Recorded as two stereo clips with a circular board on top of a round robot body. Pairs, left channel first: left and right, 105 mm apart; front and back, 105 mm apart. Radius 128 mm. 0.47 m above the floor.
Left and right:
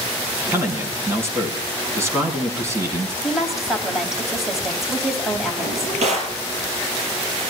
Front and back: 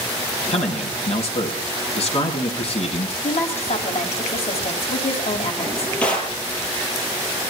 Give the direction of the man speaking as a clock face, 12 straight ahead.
1 o'clock.